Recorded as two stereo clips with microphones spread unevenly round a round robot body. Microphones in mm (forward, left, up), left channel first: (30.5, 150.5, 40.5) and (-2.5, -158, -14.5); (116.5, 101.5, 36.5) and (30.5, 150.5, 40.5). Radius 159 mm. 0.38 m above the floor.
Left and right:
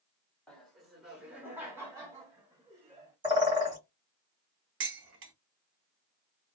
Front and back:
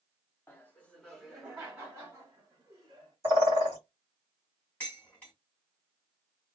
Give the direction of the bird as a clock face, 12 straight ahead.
5 o'clock.